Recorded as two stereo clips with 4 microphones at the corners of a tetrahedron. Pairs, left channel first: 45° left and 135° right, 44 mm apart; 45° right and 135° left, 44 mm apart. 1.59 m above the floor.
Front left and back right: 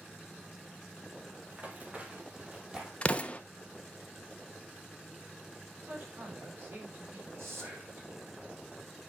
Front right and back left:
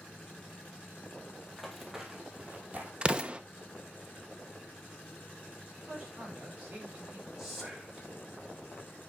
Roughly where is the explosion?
Left.